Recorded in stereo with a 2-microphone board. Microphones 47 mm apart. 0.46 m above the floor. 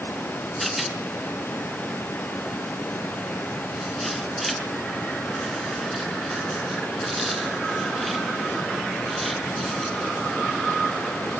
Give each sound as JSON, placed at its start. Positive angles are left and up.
{"t": 0.6, "sound": "a rattle", "side_deg": 0, "distance_m": 4.5}